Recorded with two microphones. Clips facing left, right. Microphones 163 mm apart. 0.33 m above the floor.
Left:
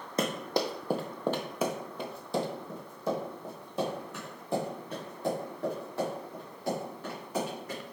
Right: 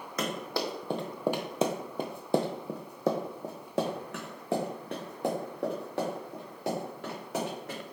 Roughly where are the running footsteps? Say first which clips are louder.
Left 3 dB; left.